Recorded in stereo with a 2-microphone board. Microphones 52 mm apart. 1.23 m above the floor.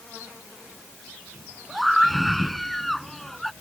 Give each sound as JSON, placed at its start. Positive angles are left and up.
{"t": 1.7, "sound": "a scream", "side_deg": 0}